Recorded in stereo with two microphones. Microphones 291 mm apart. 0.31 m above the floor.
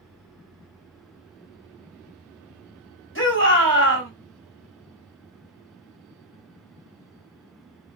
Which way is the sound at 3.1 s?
40° left (ahead or behind).